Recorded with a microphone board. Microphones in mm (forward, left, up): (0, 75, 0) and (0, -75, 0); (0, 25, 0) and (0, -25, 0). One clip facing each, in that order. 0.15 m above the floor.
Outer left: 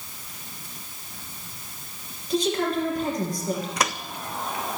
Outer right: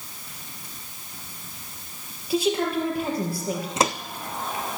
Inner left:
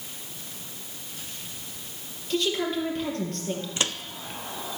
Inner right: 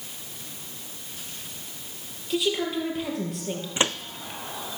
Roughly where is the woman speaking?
Centre.